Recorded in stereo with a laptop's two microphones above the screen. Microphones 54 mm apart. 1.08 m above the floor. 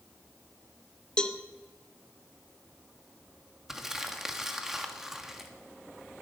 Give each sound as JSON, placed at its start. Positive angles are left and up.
{"t": 1.2, "sound": "a cowbell", "side_deg": 15, "distance_m": 0.5}
{"t": 3.7, "sound": "crumpling", "side_deg": -10, "distance_m": 1.6}